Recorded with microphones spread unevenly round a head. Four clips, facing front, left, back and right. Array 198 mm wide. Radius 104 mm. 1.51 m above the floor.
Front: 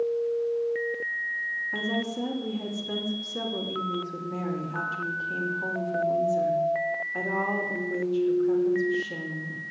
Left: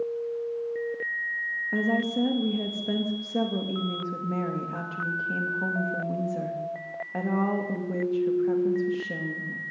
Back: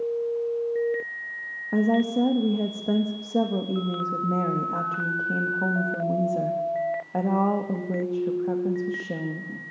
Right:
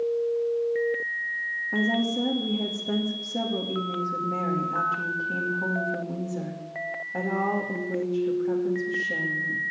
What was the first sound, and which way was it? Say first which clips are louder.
A woman speaking: even, back 10 dB; 170° left.